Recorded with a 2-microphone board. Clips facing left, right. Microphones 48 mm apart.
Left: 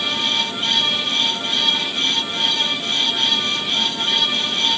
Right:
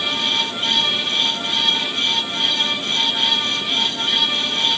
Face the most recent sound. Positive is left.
No sound to turn to.